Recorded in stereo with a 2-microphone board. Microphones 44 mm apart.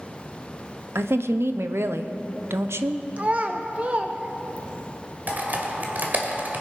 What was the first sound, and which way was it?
A woman speaking, 80° right.